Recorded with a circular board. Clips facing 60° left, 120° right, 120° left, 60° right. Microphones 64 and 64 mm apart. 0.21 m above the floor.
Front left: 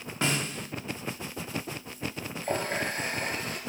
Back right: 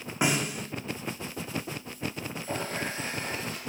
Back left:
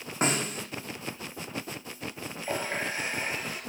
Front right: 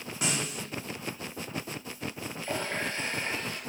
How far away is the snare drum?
About 2 m.